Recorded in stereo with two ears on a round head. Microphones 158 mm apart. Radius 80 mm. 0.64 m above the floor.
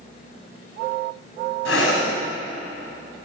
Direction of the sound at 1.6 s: 70° left (ahead or behind).